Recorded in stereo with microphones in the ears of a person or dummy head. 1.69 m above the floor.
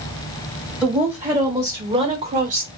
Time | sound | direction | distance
0.8 | a woman speaking | 10° right (ahead or behind) | 1.6 m